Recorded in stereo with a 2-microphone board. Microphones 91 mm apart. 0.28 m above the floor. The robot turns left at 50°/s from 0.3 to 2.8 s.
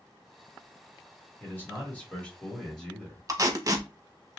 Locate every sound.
1.4 s a man speaking: 20° left (ahead or behind), 1.3 m; by 3.2 s 5° left (ahead or behind), 1.3 m
3.3 s tape being pulled: 40° right (ahead or behind), 0.5 m